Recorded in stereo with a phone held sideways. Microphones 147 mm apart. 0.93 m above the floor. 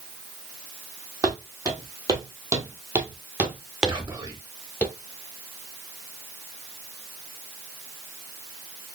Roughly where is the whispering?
Right.